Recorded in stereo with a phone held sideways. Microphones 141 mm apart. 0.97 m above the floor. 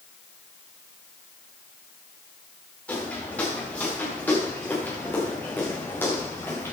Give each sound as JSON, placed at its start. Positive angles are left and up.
{"t": 2.9, "sound": "footsteps", "side_deg": 10, "distance_m": 8.5}